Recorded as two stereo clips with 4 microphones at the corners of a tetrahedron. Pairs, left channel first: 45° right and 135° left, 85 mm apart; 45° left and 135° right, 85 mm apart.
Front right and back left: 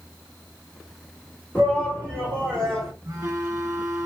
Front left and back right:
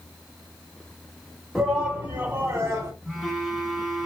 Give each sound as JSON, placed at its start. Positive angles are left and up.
{"t": 1.6, "sound": "a shout", "azimuth_deg": -55, "distance_m": 1.2}
{"t": 3.0, "sound": "a phone buzzing", "azimuth_deg": 140, "distance_m": 1.1}